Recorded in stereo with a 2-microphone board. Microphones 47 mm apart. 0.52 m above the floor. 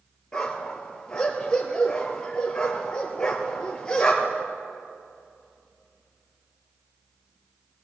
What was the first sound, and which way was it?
A dog barking, 20° left (ahead or behind).